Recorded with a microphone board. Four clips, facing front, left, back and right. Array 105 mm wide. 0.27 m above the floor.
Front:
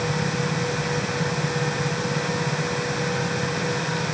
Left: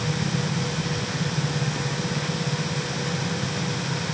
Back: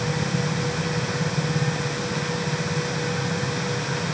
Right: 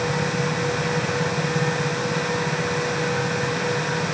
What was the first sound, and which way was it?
Only background noise.